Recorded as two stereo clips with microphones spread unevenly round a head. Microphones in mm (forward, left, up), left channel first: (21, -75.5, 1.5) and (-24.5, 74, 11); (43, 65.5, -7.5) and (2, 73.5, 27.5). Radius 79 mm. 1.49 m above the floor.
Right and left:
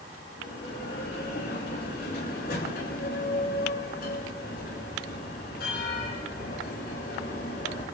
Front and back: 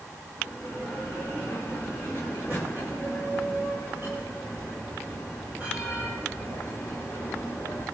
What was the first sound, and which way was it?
A bell, 105° right.